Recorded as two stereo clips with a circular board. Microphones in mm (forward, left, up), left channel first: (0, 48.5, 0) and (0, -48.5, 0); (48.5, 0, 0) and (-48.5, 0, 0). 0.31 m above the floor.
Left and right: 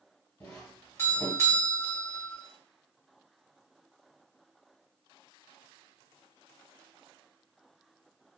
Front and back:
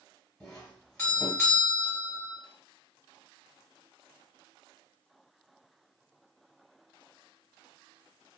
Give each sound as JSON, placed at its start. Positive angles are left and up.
{"t": 0.4, "sound": "a doorbell", "azimuth_deg": 70, "distance_m": 2.0}